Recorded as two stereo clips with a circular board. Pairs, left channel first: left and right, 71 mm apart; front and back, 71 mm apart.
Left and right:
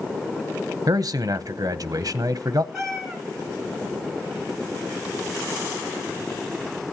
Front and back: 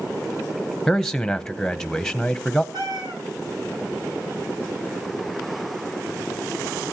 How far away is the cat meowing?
About 3.5 m.